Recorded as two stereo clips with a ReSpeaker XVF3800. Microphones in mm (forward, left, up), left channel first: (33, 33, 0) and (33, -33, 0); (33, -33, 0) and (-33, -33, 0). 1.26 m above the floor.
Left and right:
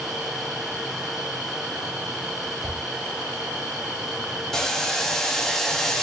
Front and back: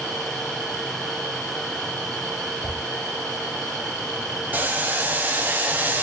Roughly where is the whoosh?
Right.